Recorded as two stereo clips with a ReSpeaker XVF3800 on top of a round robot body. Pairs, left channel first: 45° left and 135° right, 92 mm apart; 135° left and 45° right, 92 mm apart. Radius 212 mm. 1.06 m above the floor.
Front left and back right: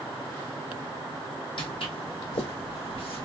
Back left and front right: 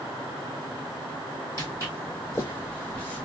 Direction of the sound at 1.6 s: 75° left.